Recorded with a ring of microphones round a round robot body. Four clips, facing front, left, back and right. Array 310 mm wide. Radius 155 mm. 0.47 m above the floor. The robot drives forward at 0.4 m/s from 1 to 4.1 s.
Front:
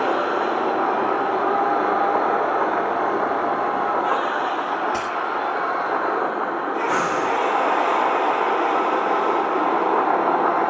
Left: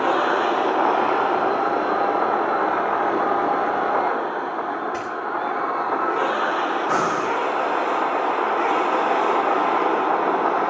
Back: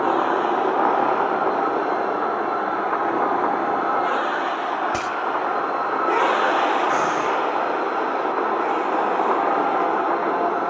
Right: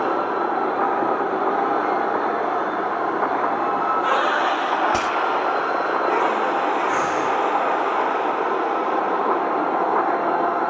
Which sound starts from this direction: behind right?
A dropped coin, at 4.9 s.